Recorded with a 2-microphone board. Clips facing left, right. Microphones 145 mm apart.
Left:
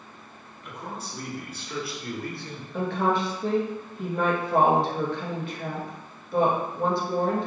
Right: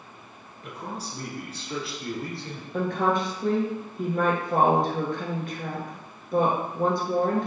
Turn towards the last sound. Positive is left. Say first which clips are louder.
# even
turn(degrees=-45)  # may be behind; listen again after turning